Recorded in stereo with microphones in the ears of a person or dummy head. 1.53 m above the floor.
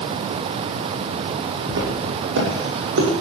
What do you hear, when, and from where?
1.7 s footsteps: 65° right (ahead or behind), 6 m; by 3.1 s 70° right (ahead or behind), 6.5 m